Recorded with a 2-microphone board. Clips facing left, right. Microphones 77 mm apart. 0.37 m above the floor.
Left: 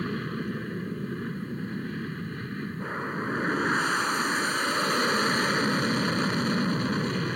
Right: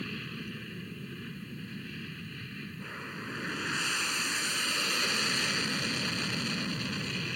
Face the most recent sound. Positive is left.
turn(degrees=40)  # may be behind; listen again after turning